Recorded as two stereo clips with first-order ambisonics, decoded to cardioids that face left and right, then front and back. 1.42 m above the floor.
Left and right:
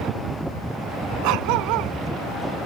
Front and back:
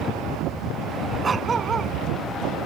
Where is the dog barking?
110° right.